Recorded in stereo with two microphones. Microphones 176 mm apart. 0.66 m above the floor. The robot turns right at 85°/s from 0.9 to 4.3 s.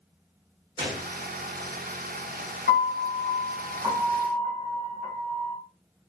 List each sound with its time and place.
0.8 s a gunshot: 30° right (ahead or behind), 0.9 m; by 1.1 s 35° right (ahead or behind), 0.9 m
2.7 s a piano: 105° left, 1.2 m; by 5.6 s 120° right, 1.2 m